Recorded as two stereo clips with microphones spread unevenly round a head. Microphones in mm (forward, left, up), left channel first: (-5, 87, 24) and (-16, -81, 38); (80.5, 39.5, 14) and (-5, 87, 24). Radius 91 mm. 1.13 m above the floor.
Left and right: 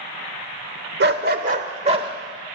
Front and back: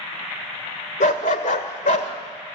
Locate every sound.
1.0 s a dog barking: 65° right, 1.5 m; by 2.1 s 30° right, 1.7 m